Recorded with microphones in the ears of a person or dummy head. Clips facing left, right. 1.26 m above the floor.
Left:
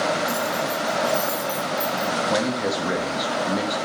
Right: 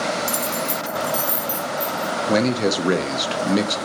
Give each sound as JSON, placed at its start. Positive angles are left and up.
{"t": 0.3, "sound": "keys jangling", "side_deg": -75, "distance_m": 0.5}
{"t": 2.3, "sound": "a man speaking", "side_deg": -40, "distance_m": 0.5}